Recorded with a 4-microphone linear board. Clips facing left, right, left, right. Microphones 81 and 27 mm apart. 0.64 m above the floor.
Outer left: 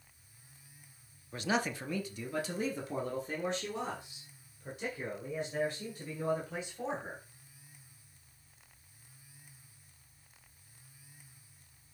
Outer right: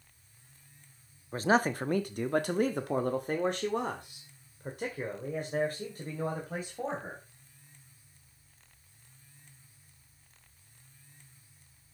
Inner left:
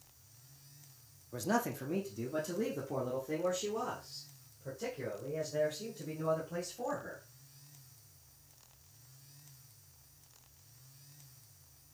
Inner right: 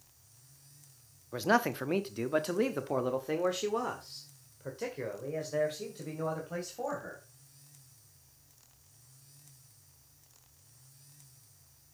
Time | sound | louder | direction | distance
1.3 | a man speaking | outer right 7 dB, inner right 6 dB | 35° right (ahead or behind) | 0.7 m